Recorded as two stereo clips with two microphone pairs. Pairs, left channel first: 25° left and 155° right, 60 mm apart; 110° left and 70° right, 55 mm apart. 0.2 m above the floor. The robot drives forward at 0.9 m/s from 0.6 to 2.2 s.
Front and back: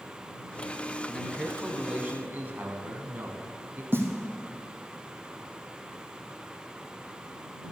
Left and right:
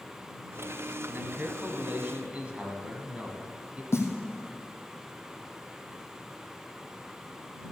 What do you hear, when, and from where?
1.1 s a man speaking: 55° right, 1.4 m; by 3.8 s 125° right, 1.3 m
3.9 s a snare drum: 150° left, 1.9 m